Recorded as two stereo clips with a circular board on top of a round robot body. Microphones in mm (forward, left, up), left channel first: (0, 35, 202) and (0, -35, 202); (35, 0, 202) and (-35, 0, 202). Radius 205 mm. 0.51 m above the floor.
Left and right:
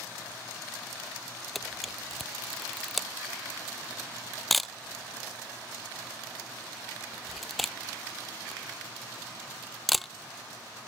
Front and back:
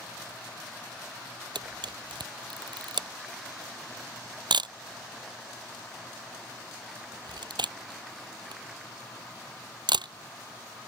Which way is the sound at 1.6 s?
Straight behind.